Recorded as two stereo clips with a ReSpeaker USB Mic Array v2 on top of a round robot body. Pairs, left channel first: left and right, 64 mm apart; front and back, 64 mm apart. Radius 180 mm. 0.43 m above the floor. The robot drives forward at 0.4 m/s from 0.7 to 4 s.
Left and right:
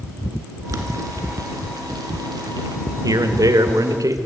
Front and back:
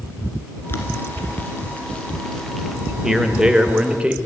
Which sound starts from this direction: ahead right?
Boiling, at 0.7 s.